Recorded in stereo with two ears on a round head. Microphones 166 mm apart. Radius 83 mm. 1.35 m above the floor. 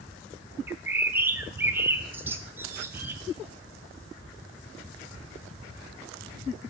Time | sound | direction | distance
0.7 | a bird | 10° right (ahead or behind) | 0.7 m